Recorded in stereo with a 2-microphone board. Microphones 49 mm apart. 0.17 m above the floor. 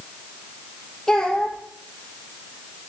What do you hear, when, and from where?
1.1 s a child speaking: 10° left (ahead or behind), 3 m